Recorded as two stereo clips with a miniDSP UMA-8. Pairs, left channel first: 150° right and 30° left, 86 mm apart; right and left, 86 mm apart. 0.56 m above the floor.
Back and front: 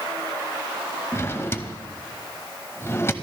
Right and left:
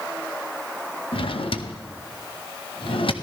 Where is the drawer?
90° right, 0.7 m.